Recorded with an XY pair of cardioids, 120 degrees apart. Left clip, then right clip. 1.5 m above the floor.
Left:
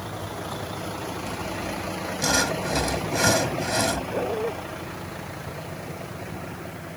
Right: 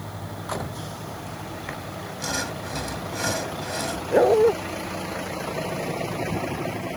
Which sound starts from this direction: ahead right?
A dog barking, at 4.1 s.